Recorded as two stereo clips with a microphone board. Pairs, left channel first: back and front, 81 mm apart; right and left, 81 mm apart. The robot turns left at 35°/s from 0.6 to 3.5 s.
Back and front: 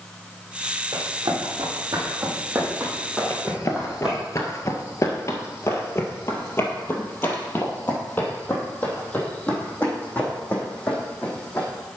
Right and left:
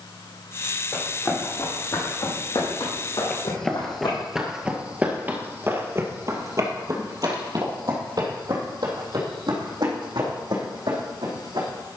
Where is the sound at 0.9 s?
5° right, 4.5 m; by 4.2 s 80° right, 3 m.